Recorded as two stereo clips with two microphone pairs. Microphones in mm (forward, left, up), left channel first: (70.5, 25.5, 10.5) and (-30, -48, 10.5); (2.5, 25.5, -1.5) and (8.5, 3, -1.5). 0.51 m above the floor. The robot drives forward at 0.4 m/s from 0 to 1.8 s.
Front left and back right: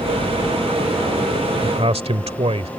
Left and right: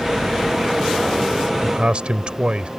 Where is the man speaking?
110° right; by 2.7 s 115° right.